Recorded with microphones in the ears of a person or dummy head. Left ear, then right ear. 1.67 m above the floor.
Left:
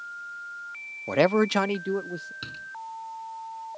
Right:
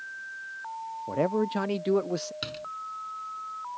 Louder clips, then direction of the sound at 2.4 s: Right 2 dB; 15° right (ahead or behind).